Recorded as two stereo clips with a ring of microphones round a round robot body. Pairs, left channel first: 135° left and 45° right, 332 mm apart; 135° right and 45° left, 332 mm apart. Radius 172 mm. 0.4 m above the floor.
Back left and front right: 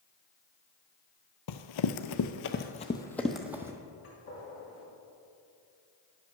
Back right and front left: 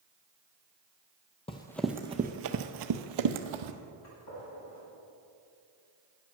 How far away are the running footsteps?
About 0.7 m.